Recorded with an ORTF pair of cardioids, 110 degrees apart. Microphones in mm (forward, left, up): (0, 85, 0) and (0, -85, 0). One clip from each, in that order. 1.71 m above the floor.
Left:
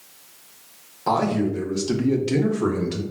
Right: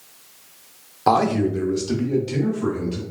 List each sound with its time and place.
1.1 s a man speaking: 35° right, 0.7 m; by 3.0 s 55° left, 0.9 m